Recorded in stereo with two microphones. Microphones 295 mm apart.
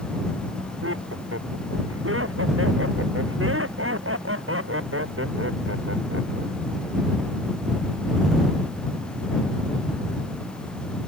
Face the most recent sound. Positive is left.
turn(degrees=-45)  # may be behind; listen again after turning